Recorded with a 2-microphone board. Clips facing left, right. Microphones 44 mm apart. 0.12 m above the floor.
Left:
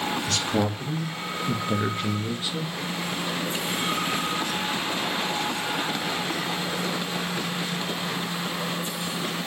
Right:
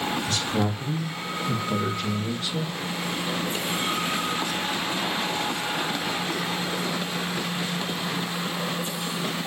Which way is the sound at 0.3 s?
65° left (ahead or behind).